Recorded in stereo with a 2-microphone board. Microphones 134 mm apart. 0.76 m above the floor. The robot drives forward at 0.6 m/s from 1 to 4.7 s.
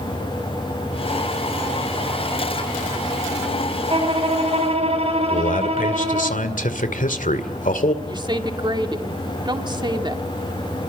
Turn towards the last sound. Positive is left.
turn(degrees=-35)  # may be behind; listen again after turning